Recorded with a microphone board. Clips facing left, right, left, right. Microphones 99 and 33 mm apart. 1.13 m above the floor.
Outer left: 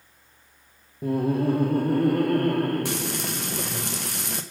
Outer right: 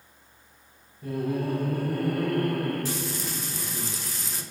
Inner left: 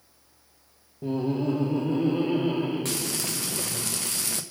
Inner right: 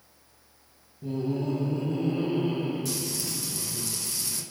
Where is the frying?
70° left (ahead or behind), 0.9 m.